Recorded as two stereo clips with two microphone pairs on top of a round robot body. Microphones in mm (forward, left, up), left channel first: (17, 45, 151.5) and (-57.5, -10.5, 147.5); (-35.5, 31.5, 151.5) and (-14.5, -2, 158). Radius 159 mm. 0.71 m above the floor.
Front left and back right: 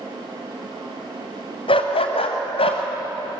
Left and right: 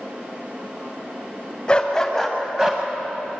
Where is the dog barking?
55° left, 1.9 m; by 2.8 s 10° left, 1.9 m.